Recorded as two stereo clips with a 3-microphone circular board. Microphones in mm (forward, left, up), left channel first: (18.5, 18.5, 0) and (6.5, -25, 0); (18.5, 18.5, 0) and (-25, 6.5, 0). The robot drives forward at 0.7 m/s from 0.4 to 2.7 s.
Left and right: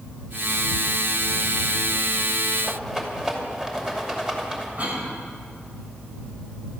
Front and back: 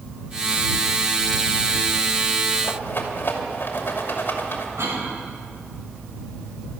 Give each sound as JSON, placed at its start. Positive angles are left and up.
{"t": 2.6, "sound": "a rattle", "azimuth_deg": -25, "distance_m": 2.5}
{"t": 4.8, "sound": "a cough", "azimuth_deg": -160, "distance_m": 4.5}